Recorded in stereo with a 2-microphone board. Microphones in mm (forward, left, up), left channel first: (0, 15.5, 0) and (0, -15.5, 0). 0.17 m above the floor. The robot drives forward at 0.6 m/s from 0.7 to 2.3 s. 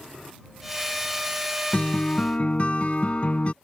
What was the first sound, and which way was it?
A guitar, 40° left (ahead or behind).